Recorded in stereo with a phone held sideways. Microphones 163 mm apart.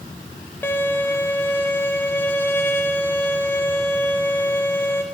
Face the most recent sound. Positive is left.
turn(degrees=15)  # may be behind; listen again after turning